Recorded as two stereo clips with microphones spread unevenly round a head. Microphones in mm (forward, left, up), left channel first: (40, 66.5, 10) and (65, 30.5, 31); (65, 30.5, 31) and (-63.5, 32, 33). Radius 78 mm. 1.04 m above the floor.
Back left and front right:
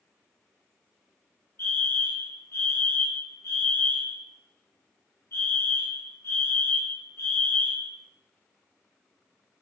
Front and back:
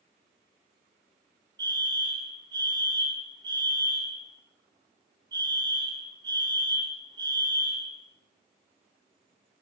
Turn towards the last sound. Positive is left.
turn(degrees=120)